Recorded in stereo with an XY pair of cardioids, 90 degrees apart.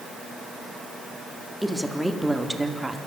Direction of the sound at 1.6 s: 5° left.